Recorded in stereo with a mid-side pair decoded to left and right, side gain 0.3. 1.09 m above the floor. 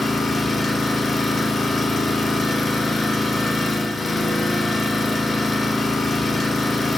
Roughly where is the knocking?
No knocking in this recording.